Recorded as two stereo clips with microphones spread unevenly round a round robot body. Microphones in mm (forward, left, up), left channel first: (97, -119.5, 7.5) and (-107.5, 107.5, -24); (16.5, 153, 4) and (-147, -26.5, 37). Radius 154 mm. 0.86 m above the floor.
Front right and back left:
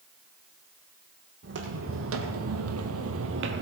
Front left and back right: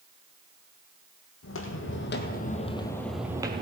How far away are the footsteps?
About 1.7 m.